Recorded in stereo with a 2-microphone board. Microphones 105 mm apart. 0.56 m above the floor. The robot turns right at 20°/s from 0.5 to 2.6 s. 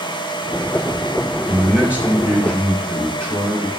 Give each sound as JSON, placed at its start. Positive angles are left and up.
{"t": 1.5, "sound": "a man speaking", "side_deg": -5, "distance_m": 1.8}